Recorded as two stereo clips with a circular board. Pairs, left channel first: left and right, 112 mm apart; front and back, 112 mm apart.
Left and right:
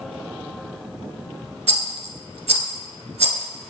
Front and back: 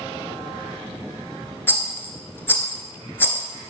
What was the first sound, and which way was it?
A rattle, 70° right.